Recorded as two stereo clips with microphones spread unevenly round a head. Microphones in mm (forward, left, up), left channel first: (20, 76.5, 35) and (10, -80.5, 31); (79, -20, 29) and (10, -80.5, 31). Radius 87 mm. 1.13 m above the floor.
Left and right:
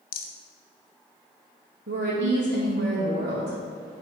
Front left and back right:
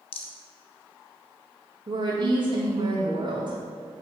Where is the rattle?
60° left, 0.9 m.